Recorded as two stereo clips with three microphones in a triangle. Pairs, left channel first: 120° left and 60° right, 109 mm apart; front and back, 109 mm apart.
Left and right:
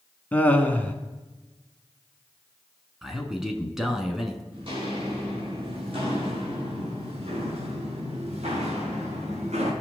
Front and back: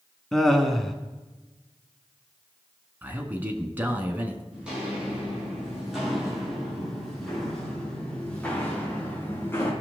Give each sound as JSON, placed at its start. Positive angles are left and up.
{"t": 0.3, "sound": "laughter", "azimuth_deg": 80, "distance_m": 1.0}
{"t": 3.0, "sound": "a man speaking", "azimuth_deg": -140, "distance_m": 1.2}
{"t": 4.5, "sound": "footsteps", "azimuth_deg": -100, "distance_m": 5.0}